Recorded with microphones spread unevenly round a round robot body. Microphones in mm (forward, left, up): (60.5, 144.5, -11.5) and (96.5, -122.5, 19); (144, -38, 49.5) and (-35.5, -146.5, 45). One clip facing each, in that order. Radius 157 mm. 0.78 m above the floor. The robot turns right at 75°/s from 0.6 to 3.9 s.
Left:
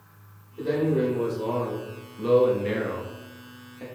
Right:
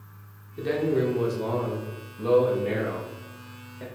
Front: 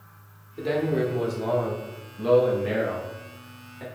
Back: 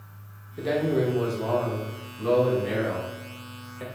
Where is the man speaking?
75° right, 1.0 m; by 3.8 s 170° left, 1.0 m.